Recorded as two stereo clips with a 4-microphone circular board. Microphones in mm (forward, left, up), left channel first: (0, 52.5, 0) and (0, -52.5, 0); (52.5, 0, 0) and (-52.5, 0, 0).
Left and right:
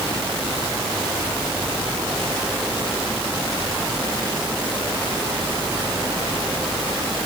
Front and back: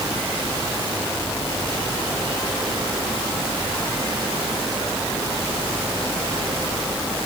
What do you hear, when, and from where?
Only background noise.